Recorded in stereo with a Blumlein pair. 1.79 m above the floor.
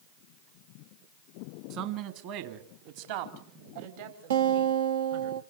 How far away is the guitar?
About 1.0 m.